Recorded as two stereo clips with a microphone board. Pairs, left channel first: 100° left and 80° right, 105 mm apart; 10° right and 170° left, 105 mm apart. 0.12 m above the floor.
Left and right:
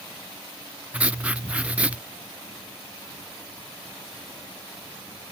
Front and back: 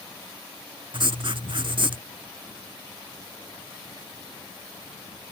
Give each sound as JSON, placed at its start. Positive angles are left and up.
{"t": 0.9, "sound": "writing", "azimuth_deg": -155}